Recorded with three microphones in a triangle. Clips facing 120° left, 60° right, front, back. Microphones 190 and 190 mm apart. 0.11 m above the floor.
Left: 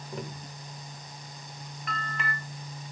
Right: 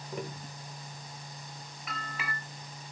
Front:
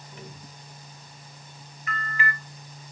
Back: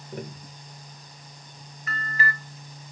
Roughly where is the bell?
Behind right.